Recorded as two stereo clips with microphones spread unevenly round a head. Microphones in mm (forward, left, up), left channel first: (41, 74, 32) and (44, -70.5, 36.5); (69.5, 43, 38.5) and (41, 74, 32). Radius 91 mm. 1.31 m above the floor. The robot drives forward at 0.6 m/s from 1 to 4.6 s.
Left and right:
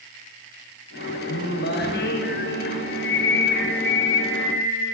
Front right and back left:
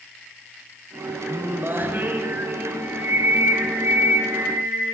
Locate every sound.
1.3 s singing: 90° left, 6 m; by 4.9 s 110° left, 6.5 m